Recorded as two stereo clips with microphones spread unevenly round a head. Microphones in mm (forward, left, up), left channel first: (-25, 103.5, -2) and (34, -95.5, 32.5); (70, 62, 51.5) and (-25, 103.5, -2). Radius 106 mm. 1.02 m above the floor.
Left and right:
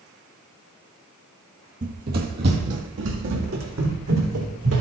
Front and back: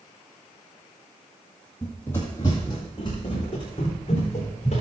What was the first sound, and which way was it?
Running footsteps, 65° right.